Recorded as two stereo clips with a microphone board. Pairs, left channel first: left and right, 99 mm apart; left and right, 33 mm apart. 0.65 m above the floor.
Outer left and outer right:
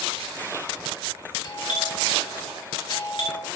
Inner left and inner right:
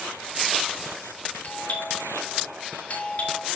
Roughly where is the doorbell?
Left.